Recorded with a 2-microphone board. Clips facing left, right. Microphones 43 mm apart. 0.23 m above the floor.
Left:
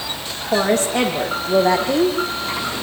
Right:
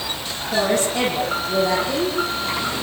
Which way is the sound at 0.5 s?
50° left (ahead or behind).